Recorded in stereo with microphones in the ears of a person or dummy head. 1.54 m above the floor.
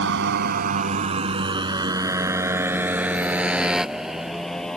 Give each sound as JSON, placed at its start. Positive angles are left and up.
{"t": 0.0, "sound": "a motorcycle", "side_deg": -65}